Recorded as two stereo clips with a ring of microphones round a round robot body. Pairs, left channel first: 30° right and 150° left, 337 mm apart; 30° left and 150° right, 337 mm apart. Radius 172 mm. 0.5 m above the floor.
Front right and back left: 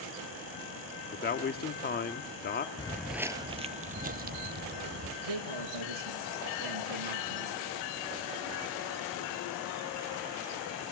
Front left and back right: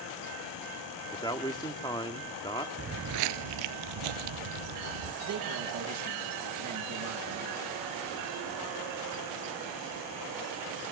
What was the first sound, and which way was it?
A man speaking, 30° right.